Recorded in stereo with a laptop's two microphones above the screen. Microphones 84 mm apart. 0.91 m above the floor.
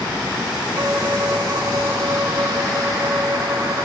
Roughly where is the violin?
Right.